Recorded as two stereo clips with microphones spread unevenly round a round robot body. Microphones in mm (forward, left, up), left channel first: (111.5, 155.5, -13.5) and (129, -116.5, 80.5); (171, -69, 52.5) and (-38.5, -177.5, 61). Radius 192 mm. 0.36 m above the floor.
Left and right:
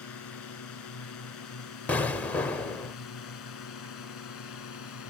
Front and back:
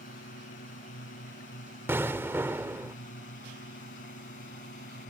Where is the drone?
90° left.